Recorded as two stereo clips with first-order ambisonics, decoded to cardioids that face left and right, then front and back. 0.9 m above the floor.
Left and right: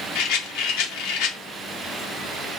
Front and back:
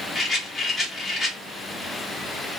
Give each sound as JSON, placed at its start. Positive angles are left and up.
{"t": 0.1, "sound": "a rattle", "azimuth_deg": 80, "distance_m": 0.8}